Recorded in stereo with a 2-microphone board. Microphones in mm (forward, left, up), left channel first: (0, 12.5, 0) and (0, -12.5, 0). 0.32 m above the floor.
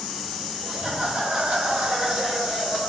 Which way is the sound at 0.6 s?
55° right (ahead or behind).